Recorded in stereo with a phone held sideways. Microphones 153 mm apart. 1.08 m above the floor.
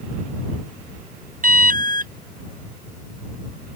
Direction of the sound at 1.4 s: 65° right (ahead or behind).